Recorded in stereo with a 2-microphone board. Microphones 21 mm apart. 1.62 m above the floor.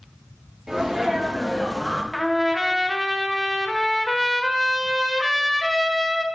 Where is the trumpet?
10° right (ahead or behind), 2 m.